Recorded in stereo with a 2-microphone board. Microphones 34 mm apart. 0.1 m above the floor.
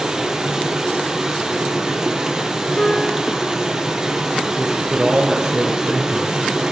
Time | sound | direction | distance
0.0 | running water | 20° right (ahead or behind) | 2.0 m
2.8 | a piano | 25° left (ahead or behind) | 1.0 m
4.6 | a man speaking | 20° right (ahead or behind) | 1.3 m